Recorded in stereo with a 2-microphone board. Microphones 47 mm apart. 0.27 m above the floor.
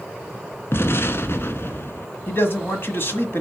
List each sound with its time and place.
0.7 s an explosion: 60° left (ahead or behind), 0.8 m
2.3 s a man speaking: 50° left (ahead or behind), 1.5 m